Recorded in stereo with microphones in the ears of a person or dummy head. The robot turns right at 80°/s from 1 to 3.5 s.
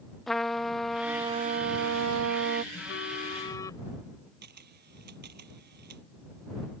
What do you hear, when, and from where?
0.3 s a trumpet: straight behind; by 2.6 s 50° right
2.7 s a phone buzzing: 95° left; by 3.9 s 155° left
4.4 s a camera shutter: 55° right (ahead or behind)